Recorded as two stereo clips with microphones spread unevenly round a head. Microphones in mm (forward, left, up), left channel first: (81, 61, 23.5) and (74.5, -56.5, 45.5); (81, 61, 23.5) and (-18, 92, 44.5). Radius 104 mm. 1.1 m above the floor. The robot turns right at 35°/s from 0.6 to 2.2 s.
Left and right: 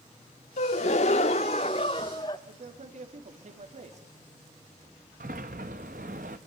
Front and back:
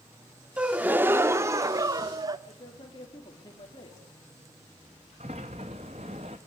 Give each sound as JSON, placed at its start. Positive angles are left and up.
{"t": 0.6, "sound": "a gasp", "azimuth_deg": 100, "distance_m": 0.8}
{"t": 2.5, "sound": "a man speaking", "azimuth_deg": -75, "distance_m": 3.0}
{"t": 5.2, "sound": "a sliding door", "azimuth_deg": -140, "distance_m": 0.8}